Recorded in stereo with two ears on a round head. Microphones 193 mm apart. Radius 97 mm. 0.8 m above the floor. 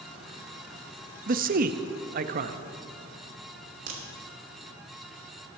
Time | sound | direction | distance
1.3 | a man speaking | 45° right (ahead or behind) | 0.6 m
3.9 | a crack | 45° right (ahead or behind) | 2.5 m